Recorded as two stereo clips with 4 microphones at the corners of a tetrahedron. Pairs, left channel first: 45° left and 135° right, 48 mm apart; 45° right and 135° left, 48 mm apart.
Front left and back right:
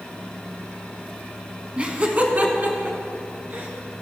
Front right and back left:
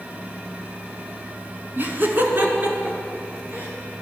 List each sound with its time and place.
1.8 s laughter: 170° left, 2.0 m; by 3.7 s 175° right, 4 m